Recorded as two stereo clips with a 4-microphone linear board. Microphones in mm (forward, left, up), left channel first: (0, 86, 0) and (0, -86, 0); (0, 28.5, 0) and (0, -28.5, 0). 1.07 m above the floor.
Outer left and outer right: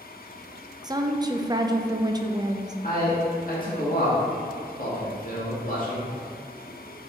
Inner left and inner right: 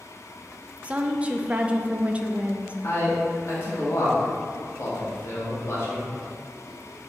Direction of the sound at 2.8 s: 55° left (ahead or behind).